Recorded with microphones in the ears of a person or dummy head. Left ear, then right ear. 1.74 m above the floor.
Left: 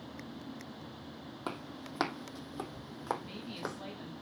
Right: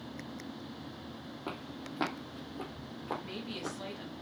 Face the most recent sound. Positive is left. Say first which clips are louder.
# right 3 dB
turn(degrees=-15)  # may be behind; listen again after turning